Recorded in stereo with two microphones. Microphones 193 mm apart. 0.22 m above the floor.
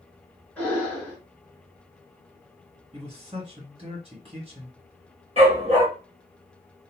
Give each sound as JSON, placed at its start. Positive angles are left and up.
{"t": 0.6, "sound": "breathing", "side_deg": 5, "distance_m": 1.6}
{"t": 2.9, "sound": "a man speaking", "side_deg": -30, "distance_m": 1.7}
{"t": 5.4, "sound": "a dog barking", "side_deg": -35, "distance_m": 2.0}